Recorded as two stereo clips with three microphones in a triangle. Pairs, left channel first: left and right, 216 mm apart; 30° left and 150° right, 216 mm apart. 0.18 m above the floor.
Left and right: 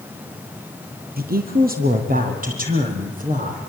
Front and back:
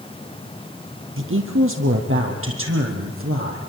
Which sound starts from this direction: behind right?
A woman speaking, at 1.2 s.